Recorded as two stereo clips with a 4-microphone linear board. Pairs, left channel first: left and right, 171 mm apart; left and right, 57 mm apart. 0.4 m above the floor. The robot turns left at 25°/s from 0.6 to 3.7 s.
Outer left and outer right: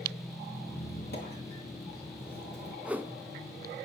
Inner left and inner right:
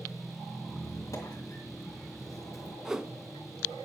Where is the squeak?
60° left (ahead or behind), 3 m; by 2.8 s 65° left (ahead or behind), 3 m.